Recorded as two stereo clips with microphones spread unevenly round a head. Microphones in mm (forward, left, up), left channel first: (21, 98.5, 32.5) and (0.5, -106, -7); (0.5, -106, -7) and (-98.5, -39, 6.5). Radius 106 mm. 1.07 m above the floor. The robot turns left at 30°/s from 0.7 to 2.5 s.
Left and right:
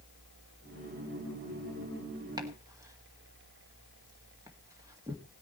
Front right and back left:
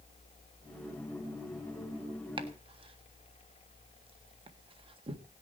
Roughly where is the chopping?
Behind.